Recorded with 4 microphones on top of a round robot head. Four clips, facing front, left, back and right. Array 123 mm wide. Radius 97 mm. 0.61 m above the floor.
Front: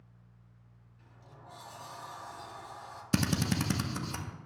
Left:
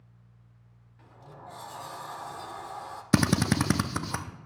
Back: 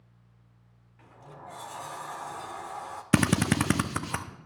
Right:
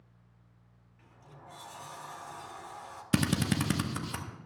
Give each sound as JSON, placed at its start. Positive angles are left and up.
{"t": 1.0, "sound": "a sliding door", "azimuth_deg": 145, "distance_m": 0.6}
{"t": 3.1, "sound": "a drill", "azimuth_deg": 140, "distance_m": 0.5}